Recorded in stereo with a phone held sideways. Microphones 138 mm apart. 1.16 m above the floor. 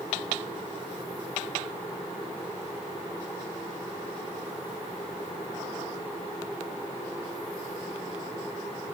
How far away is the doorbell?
I don't hear a doorbell.